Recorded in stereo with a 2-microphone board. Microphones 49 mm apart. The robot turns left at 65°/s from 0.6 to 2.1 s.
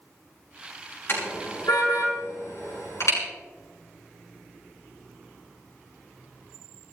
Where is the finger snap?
No finger snap in this recording.